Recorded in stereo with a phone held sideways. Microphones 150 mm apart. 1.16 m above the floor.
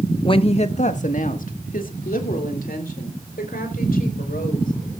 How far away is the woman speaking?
About 0.9 m.